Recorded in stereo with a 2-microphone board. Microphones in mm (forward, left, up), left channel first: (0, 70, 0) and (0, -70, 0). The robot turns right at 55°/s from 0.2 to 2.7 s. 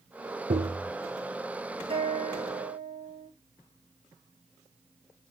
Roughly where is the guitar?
Behind right.